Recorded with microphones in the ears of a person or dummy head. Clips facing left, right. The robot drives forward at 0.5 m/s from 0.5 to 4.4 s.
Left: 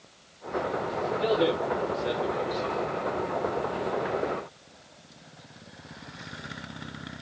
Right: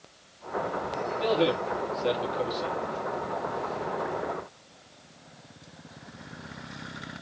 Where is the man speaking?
35° right (ahead or behind), 3 m; by 2.8 s 50° right (ahead or behind), 2.5 m.